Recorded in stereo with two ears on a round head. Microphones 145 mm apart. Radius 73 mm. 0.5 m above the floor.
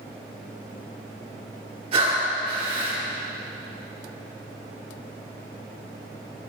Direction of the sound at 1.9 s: 40° right (ahead or behind).